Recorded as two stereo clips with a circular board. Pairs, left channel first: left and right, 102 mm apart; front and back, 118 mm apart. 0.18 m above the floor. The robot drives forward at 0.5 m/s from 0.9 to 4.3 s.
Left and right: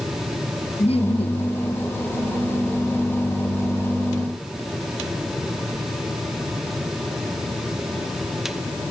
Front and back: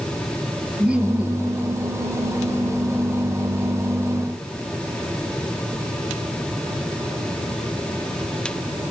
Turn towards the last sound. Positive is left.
turn(degrees=130)